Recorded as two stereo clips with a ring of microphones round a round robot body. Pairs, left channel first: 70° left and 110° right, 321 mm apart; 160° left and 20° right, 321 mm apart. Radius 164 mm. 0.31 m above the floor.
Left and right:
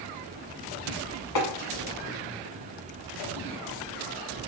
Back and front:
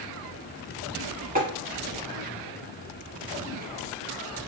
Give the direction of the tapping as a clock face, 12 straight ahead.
11 o'clock.